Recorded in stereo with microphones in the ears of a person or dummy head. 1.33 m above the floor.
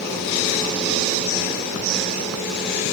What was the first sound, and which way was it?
Only background noise.